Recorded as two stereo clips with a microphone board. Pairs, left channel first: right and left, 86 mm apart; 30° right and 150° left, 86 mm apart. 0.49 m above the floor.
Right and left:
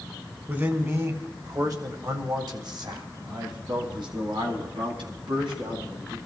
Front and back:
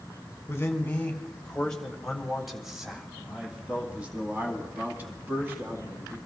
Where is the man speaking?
30° left, 1.8 m; by 6.2 s 85° left, 4 m.